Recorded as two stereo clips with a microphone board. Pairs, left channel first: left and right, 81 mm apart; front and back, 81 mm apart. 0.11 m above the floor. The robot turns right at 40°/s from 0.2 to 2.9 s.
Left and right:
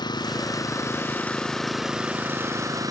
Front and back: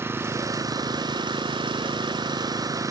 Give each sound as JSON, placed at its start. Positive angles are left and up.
{"t": 0.0, "sound": "an engine running", "azimuth_deg": 120}